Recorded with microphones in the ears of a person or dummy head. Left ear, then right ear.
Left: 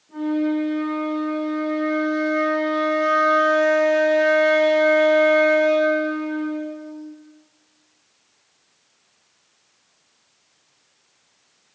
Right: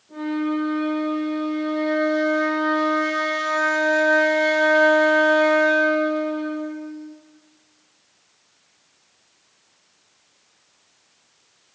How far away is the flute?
About 1.6 m.